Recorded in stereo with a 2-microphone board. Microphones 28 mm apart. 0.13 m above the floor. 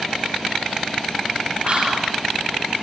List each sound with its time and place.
1.6 s whispering: 50° right (ahead or behind), 5.5 m